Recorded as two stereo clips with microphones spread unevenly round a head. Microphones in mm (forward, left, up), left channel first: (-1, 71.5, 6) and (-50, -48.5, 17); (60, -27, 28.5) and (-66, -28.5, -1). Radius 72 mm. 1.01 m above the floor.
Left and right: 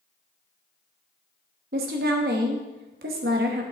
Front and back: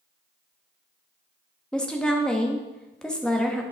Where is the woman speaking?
85° right, 1.1 m.